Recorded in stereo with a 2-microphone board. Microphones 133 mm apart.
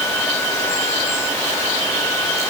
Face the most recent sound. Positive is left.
No sound to turn to.